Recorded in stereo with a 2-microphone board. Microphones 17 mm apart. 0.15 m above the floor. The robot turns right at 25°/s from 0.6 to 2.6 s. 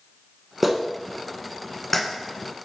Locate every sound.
0.6 s a clap: 10° right (ahead or behind), 1.0 m; by 2.0 s 10° left (ahead or behind), 1.0 m